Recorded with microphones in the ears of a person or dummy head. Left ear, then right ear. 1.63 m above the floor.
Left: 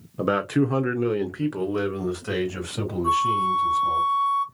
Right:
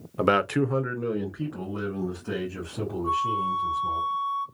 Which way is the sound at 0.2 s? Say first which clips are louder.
Right 1 dB; 40° right (ahead or behind).